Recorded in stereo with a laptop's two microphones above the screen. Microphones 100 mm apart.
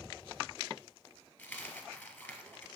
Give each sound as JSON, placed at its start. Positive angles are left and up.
{"t": 1.4, "sound": "a dropped coin", "side_deg": 20, "distance_m": 1.5}